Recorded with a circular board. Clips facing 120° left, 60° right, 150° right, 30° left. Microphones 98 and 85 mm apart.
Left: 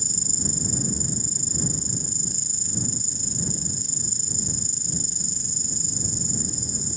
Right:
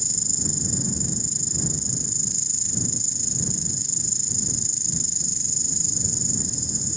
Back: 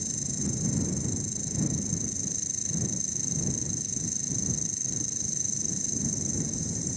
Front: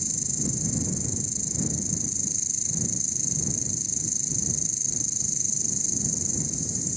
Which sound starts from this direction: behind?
An insect, at 0.0 s.